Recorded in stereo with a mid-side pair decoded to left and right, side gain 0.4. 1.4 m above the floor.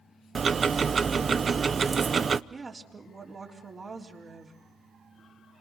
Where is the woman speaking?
40° right, 3.5 m.